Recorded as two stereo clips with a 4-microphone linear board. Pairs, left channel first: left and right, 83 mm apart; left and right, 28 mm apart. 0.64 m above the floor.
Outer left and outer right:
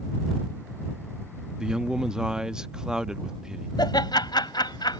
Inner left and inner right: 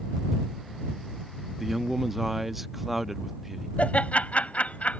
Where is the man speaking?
10° right (ahead or behind).